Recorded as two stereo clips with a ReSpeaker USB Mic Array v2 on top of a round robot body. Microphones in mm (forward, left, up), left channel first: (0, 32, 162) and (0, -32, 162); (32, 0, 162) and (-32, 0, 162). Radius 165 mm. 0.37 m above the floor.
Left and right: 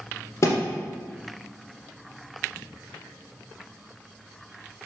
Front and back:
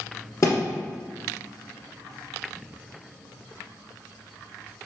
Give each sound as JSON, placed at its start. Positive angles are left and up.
{"t": 0.4, "sound": "a thud", "azimuth_deg": 40, "distance_m": 1.8}